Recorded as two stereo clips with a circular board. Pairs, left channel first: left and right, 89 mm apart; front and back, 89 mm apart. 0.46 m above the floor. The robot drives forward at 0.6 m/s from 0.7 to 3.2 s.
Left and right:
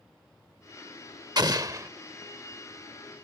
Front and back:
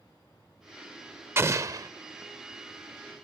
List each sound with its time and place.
1.4 s an explosion: 125° right; by 1.9 s 140° right